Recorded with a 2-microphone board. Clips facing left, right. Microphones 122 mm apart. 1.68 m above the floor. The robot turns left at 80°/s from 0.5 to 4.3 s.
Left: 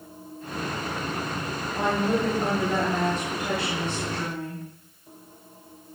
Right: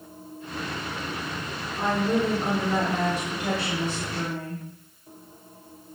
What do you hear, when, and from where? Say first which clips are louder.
1.8 s a woman speaking: even; 100° left, 3.5 m; by 4.6 s 105° right, 3.5 m